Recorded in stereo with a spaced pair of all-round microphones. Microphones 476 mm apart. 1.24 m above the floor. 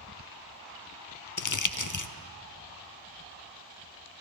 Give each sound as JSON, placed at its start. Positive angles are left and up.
{"t": 1.4, "sound": "crumpling", "side_deg": 40, "distance_m": 0.5}